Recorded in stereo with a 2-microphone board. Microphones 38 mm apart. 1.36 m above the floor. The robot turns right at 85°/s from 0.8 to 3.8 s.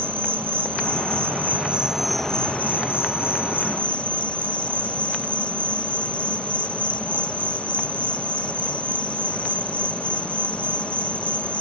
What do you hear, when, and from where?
0.0 s an insect: 110° right; by 11.6 s 145° left